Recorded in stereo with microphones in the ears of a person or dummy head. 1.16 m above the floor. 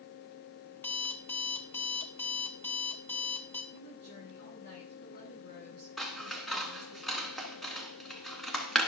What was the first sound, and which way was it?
An alarm clock, 15° left (ahead or behind).